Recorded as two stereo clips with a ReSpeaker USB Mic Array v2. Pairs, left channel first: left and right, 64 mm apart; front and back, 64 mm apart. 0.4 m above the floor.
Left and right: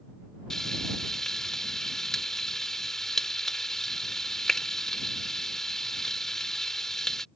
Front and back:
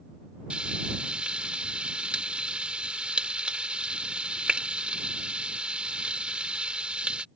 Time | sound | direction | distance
0.5 | frying | 160° left | ?